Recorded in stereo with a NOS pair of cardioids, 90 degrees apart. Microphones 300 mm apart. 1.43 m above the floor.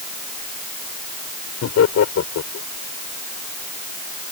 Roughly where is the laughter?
Ahead left.